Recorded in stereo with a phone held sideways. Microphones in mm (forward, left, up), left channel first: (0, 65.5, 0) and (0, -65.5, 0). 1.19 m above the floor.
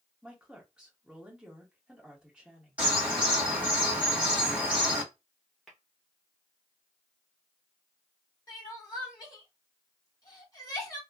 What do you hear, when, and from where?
0.2 s a woman speaking: 5° right (ahead or behind), 1.6 m
2.8 s a bird: 10° right (ahead or behind), 1.6 m
5.7 s tapping: centre (ahead or behind), 1.3 m
8.5 s crying: 30° left (ahead or behind), 1.7 m